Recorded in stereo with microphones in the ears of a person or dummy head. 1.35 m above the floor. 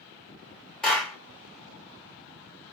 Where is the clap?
5° left (ahead or behind), 2.5 m.